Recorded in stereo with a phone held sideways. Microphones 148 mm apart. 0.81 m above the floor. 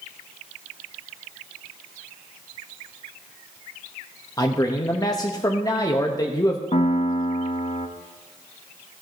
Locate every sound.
4.4 s a man speaking: 25° left (ahead or behind), 0.7 m
6.7 s a piano: 45° left (ahead or behind), 0.7 m